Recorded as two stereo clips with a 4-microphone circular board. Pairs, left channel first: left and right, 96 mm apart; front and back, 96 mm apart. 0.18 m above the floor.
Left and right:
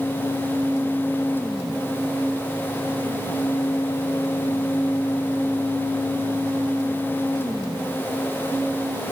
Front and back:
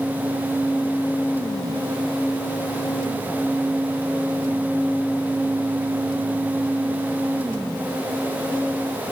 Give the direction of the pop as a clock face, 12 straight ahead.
No pop in this recording.